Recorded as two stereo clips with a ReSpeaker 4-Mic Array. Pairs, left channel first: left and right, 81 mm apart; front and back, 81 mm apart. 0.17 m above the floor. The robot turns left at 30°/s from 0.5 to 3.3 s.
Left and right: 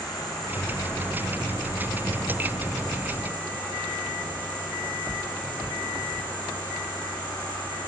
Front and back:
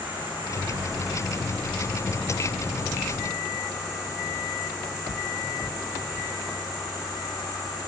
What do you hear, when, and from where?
0.0 s an insect: 115° left, 3.5 m; by 7.9 s 30° left, 3.5 m